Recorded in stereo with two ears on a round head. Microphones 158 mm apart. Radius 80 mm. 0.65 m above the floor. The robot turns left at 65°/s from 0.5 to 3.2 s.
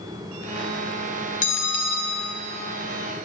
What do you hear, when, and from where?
1.4 s a bell: 125° left, 2.5 m; by 2.3 s 70° left, 2.5 m